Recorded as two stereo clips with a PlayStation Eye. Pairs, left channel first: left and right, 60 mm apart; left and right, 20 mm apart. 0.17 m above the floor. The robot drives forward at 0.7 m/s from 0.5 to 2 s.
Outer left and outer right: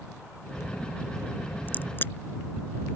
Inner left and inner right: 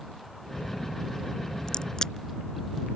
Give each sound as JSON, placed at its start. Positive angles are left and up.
{"t": 1.7, "sound": "a crack", "side_deg": 35}